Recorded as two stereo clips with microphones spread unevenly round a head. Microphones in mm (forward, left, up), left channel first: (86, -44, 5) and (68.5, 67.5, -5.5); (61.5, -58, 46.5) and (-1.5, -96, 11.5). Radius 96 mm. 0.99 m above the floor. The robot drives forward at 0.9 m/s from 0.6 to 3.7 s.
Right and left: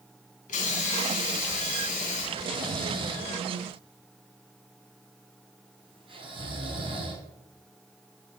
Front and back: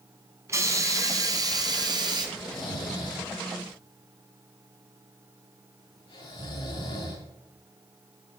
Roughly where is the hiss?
Right.